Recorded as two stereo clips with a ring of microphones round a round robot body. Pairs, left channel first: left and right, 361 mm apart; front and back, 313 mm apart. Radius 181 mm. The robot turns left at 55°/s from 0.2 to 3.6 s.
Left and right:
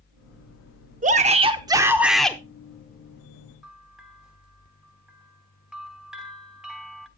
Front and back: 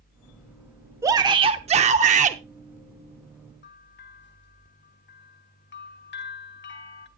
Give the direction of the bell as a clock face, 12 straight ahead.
12 o'clock.